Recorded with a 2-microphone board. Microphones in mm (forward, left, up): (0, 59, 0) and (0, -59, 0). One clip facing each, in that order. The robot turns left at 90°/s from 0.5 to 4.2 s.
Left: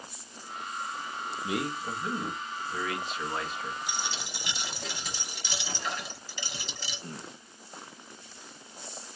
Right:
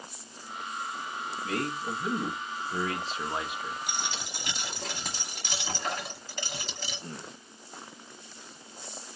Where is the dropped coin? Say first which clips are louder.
Even; 90° right, 1.1 m; by 7.0 s 120° right, 1.1 m.